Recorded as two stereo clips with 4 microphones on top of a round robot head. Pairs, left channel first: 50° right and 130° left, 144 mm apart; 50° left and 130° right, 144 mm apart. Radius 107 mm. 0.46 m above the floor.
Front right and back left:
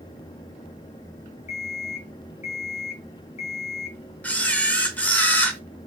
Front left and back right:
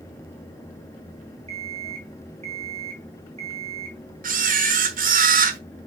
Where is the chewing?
I don't hear chewing.